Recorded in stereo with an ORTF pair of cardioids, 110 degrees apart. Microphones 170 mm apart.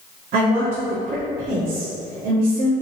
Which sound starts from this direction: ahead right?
A woman speaking, at 0.3 s.